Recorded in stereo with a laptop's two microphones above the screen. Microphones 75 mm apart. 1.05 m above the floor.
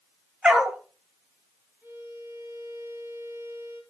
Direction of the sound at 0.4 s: 10° right (ahead or behind).